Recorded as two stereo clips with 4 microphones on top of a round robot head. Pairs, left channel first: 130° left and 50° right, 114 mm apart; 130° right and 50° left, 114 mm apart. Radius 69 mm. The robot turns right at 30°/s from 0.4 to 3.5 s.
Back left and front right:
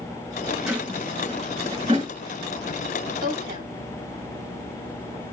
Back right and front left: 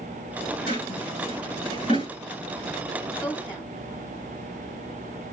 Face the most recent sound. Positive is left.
turn(degrees=-55)